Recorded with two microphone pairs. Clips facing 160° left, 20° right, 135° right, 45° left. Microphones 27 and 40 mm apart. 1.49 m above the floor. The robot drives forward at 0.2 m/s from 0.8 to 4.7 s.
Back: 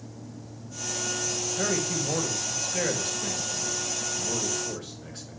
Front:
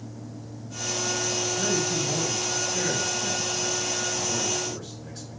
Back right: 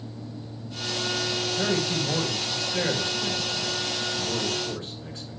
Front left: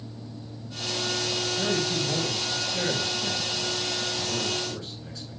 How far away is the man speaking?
About 1.7 m.